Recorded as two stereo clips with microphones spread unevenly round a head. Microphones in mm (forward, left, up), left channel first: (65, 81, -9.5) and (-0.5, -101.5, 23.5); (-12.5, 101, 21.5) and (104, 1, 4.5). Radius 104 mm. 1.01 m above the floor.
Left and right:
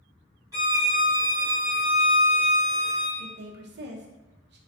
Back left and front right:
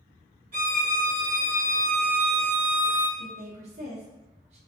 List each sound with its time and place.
0.5 s a violin: 60° right, 1.1 m
3.2 s a woman speaking: 85° right, 0.7 m